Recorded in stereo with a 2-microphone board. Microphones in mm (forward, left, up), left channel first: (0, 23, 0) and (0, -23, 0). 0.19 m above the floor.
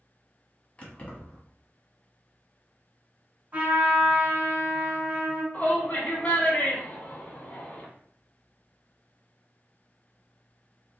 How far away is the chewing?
No chewing in this recording.